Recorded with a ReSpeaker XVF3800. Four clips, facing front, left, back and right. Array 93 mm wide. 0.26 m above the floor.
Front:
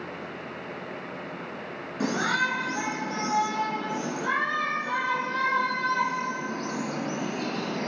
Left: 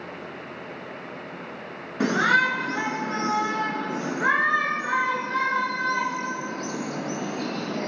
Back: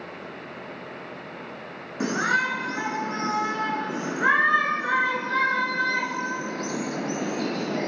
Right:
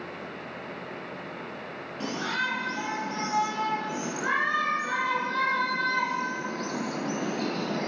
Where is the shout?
110° left, 4.5 m; by 7.9 s 175° right, 6.5 m.